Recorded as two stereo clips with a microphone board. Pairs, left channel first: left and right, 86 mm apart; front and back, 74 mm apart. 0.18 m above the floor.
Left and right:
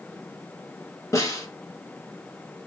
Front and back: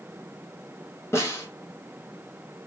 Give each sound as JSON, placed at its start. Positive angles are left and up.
{"t": 1.1, "sound": "a snare drum", "azimuth_deg": 45, "distance_m": 2.5}